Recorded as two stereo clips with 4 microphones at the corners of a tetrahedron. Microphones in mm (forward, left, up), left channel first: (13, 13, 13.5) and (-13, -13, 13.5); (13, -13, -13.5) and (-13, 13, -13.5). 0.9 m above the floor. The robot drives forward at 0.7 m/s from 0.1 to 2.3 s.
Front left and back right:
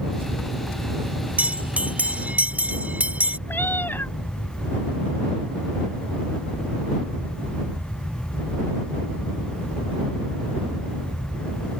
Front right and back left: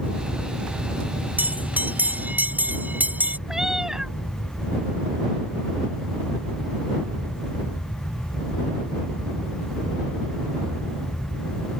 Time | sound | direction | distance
1.4 | a bell | 175° left | ?
3.5 | a cat meowing | 60° left | ?